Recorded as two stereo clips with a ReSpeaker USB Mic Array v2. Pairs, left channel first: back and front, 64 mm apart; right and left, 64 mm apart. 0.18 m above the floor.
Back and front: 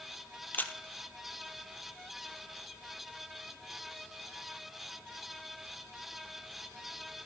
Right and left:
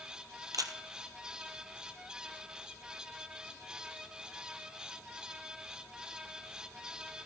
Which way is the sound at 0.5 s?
115° left.